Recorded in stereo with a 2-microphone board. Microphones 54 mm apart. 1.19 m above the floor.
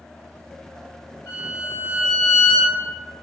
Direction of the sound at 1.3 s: 65° left (ahead or behind).